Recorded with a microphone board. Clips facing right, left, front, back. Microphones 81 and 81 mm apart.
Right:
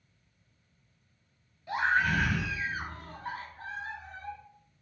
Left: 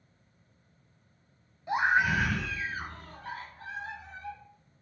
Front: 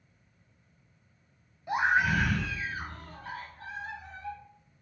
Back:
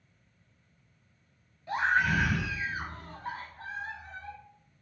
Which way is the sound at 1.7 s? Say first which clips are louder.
Left 2 dB, front 1 dB; 55° left.